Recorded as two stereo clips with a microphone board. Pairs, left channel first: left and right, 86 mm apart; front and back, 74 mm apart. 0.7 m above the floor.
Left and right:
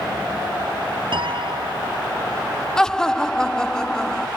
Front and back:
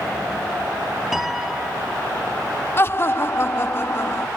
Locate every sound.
1.1 s a piano: 95° right
2.8 s laughter: 15° left